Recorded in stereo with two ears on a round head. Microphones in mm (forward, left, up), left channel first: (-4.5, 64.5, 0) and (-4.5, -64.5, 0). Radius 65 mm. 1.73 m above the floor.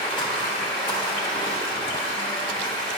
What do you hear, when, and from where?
0.0 s running water: 35° left (ahead or behind), 1.2 m